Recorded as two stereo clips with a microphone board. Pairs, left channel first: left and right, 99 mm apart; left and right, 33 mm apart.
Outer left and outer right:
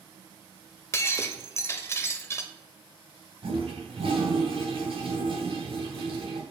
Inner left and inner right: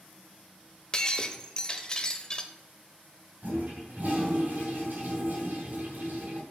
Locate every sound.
0.9 s breaking glass: 25° left (ahead or behind), 0.6 m
3.4 s a toilet flushing: 65° right (ahead or behind), 3 m